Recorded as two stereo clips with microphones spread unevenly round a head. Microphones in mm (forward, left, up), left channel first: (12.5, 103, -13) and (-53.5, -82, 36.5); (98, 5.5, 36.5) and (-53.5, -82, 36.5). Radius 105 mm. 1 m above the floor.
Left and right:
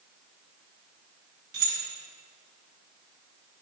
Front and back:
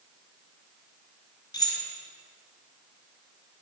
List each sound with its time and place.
1.5 s keys jangling: 40° right, 3.5 m